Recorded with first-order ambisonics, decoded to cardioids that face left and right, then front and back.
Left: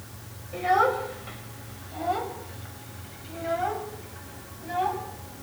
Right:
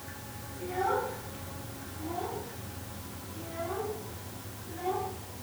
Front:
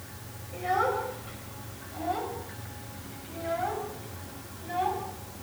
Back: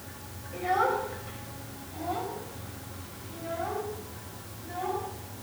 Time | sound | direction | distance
0.5 | a child speaking | 90° left | 5.5 m